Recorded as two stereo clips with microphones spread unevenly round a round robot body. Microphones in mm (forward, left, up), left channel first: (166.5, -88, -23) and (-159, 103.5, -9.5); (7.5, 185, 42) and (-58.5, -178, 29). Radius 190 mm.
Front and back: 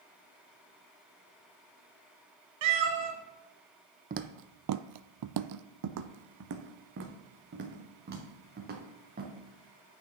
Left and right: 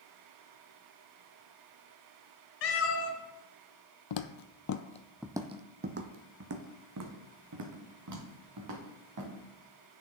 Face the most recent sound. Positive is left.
turn(degrees=-145)